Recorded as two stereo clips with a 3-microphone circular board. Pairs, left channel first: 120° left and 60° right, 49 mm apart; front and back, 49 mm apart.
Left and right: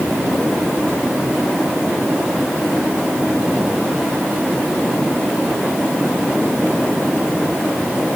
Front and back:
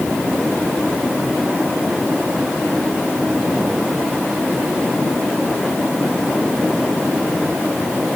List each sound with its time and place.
Only background noise.